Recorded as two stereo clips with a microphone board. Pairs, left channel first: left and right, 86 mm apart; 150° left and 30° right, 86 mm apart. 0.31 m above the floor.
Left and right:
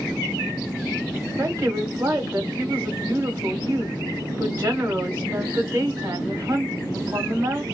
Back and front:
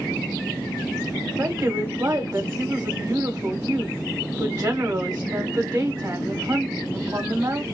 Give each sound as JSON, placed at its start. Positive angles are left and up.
{"t": 1.4, "sound": "a woman speaking", "azimuth_deg": -35, "distance_m": 1.3}